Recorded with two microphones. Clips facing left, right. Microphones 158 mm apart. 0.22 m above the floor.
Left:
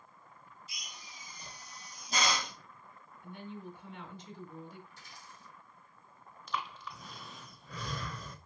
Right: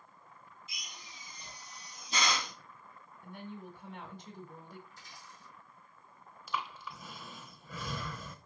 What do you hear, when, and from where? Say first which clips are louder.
0.7 s a drill: even; 40° left (ahead or behind), 2 m
3.2 s a woman speaking: left 1 dB; 40° right (ahead or behind), 1.3 m
4.9 s a dropped coin: even; 65° left (ahead or behind), 3.5 m
6.5 s breathing: even; 5° right (ahead or behind), 0.8 m